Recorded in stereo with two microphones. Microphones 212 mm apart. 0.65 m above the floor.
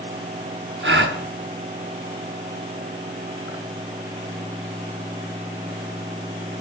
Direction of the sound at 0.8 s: 60° right (ahead or behind).